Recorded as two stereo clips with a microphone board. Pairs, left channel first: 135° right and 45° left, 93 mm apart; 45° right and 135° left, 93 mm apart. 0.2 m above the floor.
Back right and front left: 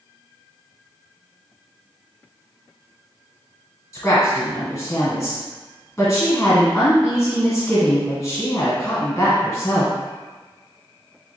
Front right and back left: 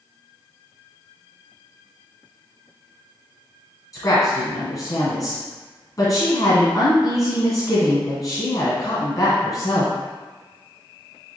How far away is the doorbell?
I don't hear a doorbell.